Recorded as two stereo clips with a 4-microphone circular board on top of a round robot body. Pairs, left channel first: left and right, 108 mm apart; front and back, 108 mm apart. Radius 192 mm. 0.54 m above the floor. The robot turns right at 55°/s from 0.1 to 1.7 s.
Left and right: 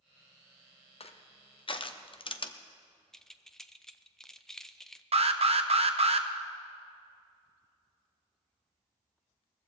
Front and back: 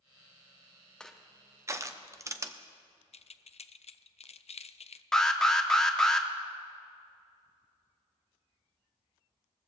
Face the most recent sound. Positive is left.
turn(degrees=-85)